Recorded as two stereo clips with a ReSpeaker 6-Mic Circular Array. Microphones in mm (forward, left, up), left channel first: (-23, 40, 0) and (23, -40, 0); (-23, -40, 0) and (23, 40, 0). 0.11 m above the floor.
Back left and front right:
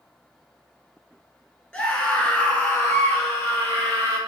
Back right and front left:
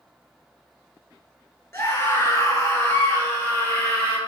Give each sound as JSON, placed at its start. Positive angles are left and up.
{"t": 1.7, "sound": "a scream", "azimuth_deg": -170, "distance_m": 2.5}